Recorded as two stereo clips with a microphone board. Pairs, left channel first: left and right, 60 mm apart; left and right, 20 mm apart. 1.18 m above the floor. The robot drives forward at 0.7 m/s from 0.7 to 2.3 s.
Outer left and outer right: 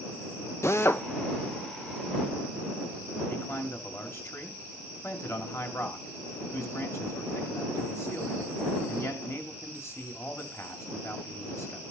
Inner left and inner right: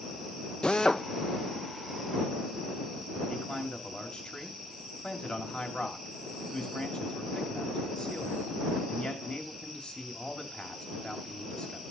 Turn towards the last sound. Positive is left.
turn(degrees=45)  # may be behind; listen again after turning